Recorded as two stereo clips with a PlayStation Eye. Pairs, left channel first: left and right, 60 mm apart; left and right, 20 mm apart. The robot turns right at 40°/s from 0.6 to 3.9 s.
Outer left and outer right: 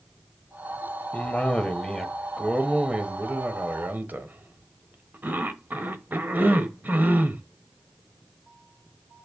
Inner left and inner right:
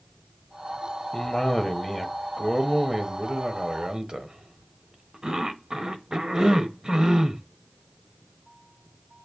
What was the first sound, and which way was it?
A cough, 135° left.